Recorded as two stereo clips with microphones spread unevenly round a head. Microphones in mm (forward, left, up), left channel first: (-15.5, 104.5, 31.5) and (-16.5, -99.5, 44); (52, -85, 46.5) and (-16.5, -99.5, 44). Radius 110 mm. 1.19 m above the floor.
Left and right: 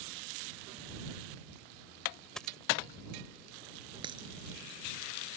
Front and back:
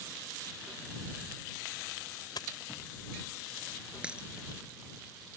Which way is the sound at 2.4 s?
Straight ahead.